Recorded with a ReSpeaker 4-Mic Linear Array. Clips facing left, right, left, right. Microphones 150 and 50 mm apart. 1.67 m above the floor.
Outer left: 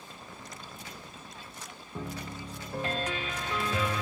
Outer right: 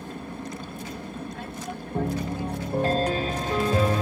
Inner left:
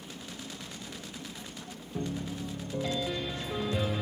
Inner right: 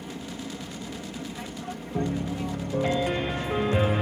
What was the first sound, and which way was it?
An aircraft, 65° right (ahead or behind).